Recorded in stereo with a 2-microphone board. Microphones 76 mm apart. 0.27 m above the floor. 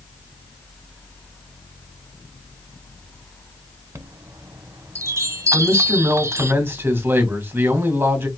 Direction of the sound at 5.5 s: 30° right (ahead or behind).